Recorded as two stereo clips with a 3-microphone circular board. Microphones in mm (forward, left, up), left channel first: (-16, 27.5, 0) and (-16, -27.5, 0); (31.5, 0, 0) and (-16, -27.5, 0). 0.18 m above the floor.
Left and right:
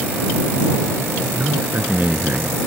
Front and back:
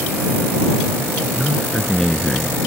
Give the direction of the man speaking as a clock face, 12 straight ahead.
2 o'clock.